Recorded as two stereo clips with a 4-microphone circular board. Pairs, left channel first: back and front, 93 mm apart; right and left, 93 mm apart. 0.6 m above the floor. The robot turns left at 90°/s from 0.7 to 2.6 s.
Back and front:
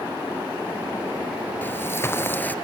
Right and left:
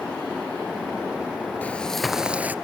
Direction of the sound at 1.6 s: 145° right.